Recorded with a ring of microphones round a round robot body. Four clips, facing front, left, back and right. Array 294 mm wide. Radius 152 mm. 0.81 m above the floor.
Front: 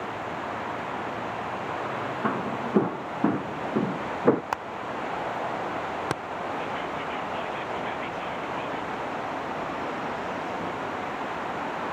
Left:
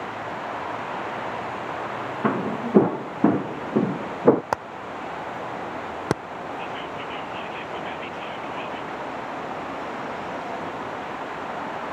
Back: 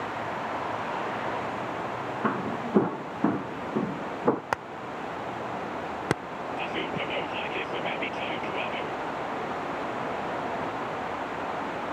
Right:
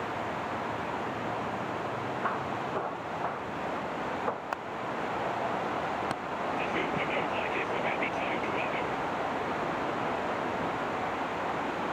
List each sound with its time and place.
2.2 s footsteps: 95° left; by 4.4 s 75° left
4.5 s hammering: 110° left
6.6 s whispering: 140° right